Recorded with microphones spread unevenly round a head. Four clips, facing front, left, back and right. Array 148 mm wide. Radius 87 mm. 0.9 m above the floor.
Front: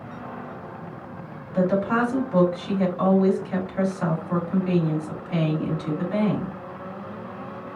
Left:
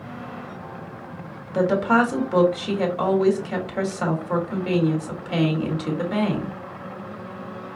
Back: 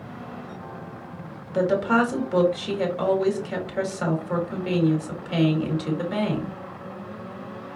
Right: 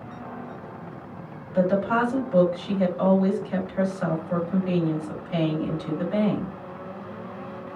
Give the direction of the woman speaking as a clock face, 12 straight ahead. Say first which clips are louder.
Left 3 dB, back 1 dB; 9 o'clock.